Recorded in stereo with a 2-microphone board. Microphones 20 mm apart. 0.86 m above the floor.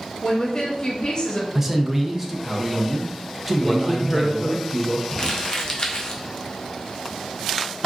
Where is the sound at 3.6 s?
20° left (ahead or behind), 0.7 m.